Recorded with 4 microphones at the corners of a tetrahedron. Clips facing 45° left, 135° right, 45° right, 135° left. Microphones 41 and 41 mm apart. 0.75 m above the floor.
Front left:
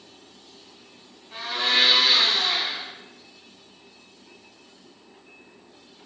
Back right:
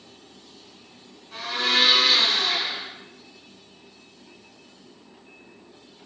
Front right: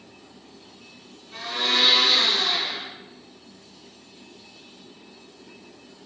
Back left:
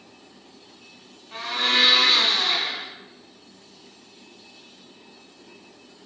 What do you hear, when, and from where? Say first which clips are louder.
1.3 s a blender: even, back left 2 dB; 120° left, 6 m